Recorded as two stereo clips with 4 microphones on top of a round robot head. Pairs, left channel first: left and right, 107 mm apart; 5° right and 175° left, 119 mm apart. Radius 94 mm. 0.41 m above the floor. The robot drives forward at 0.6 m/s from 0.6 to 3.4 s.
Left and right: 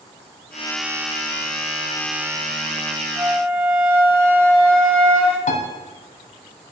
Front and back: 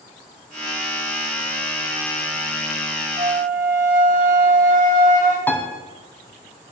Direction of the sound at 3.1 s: 160° right.